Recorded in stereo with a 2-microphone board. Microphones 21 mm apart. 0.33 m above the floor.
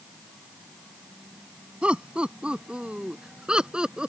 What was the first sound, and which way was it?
Laughter, 65° right (ahead or behind).